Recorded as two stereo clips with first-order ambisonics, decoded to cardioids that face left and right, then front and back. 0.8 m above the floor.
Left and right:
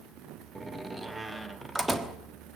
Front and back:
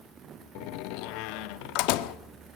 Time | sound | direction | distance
0.6 | a door slam | 5° right | 1.3 m